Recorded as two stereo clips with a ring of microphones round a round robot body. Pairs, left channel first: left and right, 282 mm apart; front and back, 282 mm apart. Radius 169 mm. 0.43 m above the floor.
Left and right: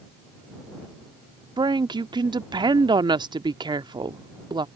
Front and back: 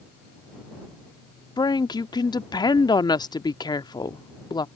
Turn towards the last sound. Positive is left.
turn(degrees=-50)